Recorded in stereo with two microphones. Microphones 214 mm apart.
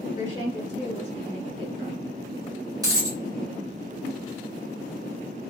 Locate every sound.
0.1 s a woman speaking: 10° right (ahead or behind), 1.4 m; by 2.0 s 25° right (ahead or behind), 1.0 m
2.8 s a dropped coin: 15° right (ahead or behind), 1.1 m